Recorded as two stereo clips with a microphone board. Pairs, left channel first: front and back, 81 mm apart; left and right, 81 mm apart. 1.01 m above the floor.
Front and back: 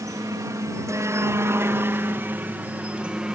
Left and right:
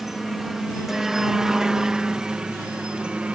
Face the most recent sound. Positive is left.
turn(degrees=-125)